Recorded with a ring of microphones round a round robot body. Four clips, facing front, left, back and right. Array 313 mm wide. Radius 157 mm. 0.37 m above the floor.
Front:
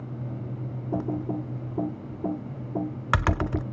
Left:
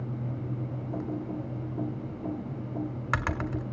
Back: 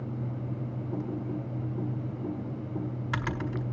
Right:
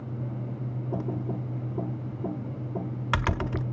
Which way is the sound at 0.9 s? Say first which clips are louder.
Right 1 dB, front 6 dB; 15° right.